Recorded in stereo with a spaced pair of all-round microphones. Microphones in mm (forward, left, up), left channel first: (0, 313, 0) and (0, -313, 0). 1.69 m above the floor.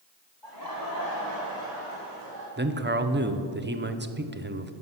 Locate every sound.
0.4 s laughter: 45° left (ahead or behind), 1.3 m; by 2.5 s 15° left (ahead or behind), 4 m
2.6 s a man speaking: 20° right (ahead or behind), 0.5 m